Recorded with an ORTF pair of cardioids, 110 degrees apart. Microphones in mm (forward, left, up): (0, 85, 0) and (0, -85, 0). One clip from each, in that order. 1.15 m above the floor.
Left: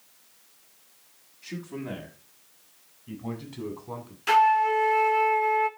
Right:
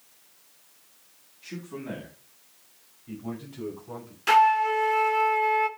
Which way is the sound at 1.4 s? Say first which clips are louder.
Left 1 dB; 10° left.